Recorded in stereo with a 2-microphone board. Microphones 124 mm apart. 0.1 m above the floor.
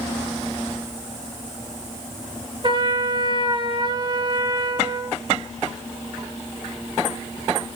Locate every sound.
2.6 s a trumpet: 40° right (ahead or behind), 1.4 m